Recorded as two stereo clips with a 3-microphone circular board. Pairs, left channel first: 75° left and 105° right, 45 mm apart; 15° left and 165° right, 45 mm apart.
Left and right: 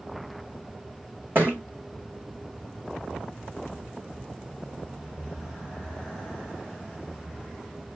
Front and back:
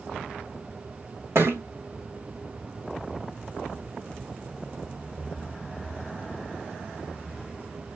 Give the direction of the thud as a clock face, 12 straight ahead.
5 o'clock.